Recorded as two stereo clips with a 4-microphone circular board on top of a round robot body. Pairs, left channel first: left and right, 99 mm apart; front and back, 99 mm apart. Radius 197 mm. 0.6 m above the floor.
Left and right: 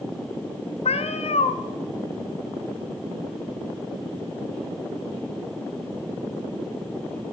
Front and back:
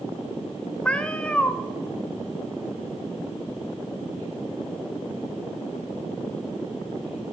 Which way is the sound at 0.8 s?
80° left.